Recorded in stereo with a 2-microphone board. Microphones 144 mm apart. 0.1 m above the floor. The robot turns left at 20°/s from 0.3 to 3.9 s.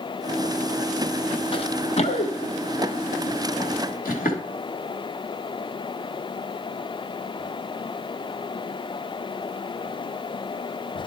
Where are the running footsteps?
40° left (ahead or behind), 0.7 m; by 4.4 s 85° left, 3 m.